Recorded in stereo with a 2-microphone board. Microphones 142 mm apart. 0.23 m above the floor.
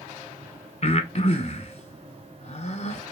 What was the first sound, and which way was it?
Breathing, 50° left (ahead or behind).